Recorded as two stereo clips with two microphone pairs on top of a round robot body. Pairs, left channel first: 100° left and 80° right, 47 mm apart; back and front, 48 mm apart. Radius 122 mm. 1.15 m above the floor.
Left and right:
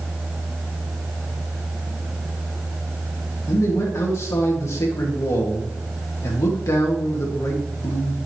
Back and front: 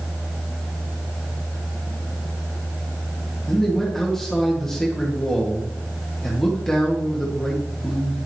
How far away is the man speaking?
About 1.6 m.